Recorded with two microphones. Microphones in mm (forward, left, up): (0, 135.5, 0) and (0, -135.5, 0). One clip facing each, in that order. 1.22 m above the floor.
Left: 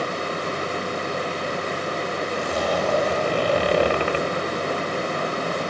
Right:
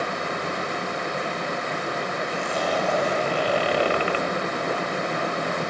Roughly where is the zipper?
Left.